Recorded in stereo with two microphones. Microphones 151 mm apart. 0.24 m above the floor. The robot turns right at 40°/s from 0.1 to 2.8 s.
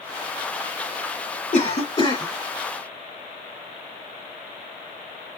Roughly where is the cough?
Left.